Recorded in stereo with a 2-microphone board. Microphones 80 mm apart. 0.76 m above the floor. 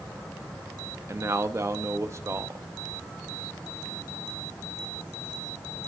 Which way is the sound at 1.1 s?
35° right (ahead or behind).